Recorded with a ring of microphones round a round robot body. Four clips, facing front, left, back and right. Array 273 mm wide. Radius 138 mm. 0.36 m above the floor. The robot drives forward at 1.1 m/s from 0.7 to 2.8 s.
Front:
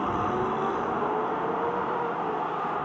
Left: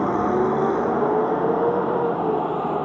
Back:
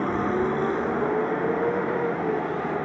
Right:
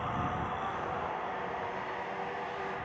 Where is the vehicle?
110° left; by 2.9 s 115° left.